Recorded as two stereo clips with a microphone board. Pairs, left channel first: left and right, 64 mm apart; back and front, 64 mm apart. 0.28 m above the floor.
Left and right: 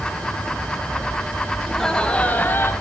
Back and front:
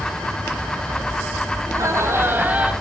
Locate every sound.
1.6 s laughter: 5° left, 1.5 m; by 2.7 s 60° left, 1.4 m